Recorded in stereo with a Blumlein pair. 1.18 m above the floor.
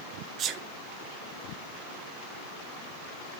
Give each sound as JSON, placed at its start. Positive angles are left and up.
{"t": 0.4, "sound": "a sneeze", "azimuth_deg": -30, "distance_m": 0.9}